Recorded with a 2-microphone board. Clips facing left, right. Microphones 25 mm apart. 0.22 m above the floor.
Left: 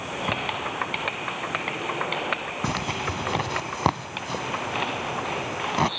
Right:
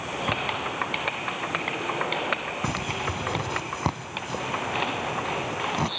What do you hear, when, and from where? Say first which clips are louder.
2.6 s a zipper: left 2 dB; 30° left (ahead or behind)